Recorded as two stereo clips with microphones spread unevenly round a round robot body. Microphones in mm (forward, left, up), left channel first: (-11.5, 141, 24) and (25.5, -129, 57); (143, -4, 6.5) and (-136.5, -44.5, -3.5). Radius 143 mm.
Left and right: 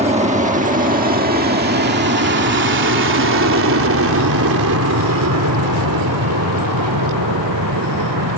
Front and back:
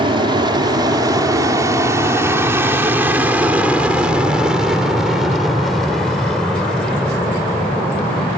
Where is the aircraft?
125° right; by 8.4 s 75° right.